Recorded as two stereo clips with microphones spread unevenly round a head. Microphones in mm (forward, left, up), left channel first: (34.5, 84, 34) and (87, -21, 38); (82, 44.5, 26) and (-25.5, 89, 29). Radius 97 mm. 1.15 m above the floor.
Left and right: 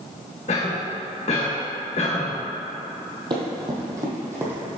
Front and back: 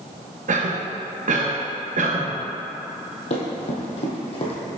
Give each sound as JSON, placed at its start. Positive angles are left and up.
{"t": 0.5, "sound": "a cough", "azimuth_deg": 160, "distance_m": 1.3}
{"t": 3.3, "sound": "running footsteps", "azimuth_deg": -30, "distance_m": 1.9}